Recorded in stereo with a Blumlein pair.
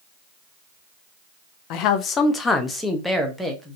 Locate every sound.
1.7 s a man speaking: 40° left, 0.7 m; by 3.8 s 5° right, 1.5 m